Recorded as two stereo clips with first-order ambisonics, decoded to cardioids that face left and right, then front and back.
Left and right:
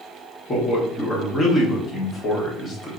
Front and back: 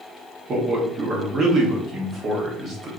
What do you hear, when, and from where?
0.5 s a man speaking: 140° left, 0.9 m